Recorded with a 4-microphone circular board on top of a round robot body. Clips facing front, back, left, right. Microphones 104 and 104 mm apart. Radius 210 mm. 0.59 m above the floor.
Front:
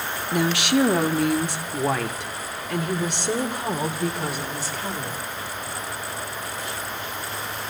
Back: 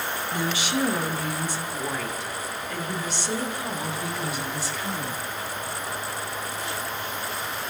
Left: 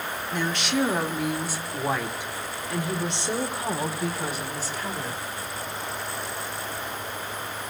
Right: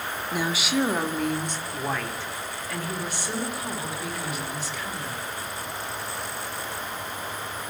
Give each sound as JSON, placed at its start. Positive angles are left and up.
{"t": 0.3, "sound": "a woman speaking", "azimuth_deg": -10, "distance_m": 2.5}